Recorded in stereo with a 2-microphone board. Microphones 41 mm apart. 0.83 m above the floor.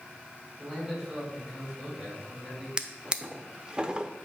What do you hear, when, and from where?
0.6 s a man speaking: 10° right (ahead or behind), 4.5 m
2.8 s a drawer: 20° right (ahead or behind), 0.6 m